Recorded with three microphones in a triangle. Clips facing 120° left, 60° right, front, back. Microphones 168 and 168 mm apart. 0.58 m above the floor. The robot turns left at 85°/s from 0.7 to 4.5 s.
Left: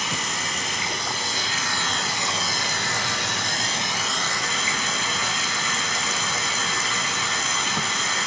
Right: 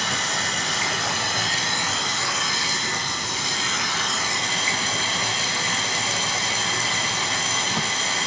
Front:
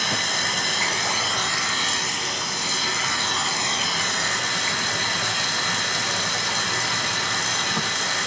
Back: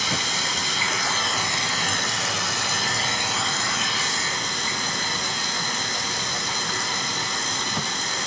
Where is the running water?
40° right, 2 m; by 8.3 s straight ahead, 2 m.